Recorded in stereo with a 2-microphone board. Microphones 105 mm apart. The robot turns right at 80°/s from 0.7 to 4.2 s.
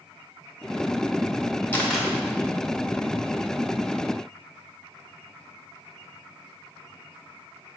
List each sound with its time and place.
1.7 s a camera shutter: 20° left (ahead or behind), 0.7 m; by 2.1 s 5° right (ahead or behind), 0.7 m